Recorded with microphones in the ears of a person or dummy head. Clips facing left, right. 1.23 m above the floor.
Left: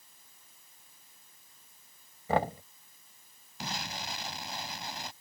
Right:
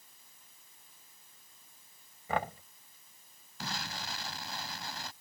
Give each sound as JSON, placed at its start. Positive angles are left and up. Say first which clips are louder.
{"t": 2.3, "sound": "knocking", "louder": "left 5 dB", "side_deg": 40}
{"t": 3.6, "sound": "an explosion", "louder": "left 2 dB", "side_deg": 15}